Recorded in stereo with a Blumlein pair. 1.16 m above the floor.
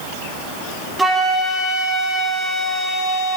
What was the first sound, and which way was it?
A flute, 10° right.